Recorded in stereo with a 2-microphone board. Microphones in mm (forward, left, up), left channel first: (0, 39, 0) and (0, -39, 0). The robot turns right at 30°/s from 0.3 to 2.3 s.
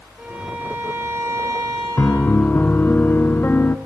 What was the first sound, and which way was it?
A violin, 170° right.